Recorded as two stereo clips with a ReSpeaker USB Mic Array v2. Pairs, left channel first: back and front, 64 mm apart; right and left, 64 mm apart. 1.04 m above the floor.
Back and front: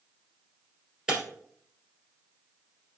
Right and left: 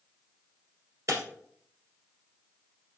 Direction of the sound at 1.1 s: 75° left.